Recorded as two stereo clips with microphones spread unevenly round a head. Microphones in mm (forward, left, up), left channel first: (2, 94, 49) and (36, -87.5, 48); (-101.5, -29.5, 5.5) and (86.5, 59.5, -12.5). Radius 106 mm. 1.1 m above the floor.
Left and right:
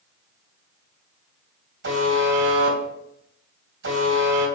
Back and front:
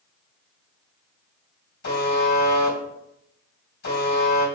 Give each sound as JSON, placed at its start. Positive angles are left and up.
{"t": 1.8, "sound": "a buzzer", "azimuth_deg": -110, "distance_m": 3.5}